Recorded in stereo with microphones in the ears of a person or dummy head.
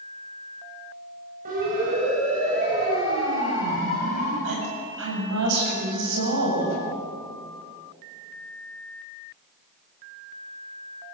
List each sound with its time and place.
1.4 s a siren: 40° right (ahead or behind), 9 m; by 4.3 s 35° right (ahead or behind), 10.5 m
4.4 s a woman speaking: 75° right (ahead or behind), 7.5 m